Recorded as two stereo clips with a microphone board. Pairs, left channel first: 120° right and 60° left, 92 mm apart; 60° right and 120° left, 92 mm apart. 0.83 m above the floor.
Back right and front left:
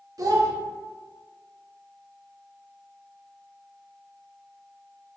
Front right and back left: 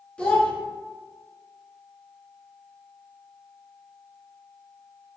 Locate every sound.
0.2 s a child speaking: 15° left, 0.6 m